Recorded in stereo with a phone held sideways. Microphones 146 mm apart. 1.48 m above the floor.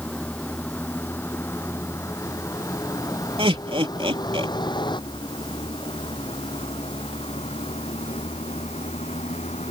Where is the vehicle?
10° left (ahead or behind); by 9.7 s 50° left (ahead or behind).